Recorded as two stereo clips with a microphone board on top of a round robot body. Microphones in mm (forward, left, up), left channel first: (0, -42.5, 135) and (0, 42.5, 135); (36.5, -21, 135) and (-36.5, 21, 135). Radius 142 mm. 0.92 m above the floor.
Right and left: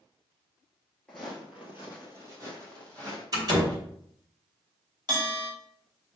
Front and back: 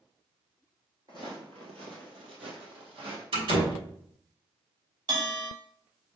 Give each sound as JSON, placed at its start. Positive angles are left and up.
{"t": 1.1, "sound": "footsteps", "azimuth_deg": -170, "distance_m": 1.0}
{"t": 3.3, "sound": "a door slam", "azimuth_deg": 140, "distance_m": 4.0}
{"t": 5.1, "sound": "a bell", "azimuth_deg": 130, "distance_m": 3.0}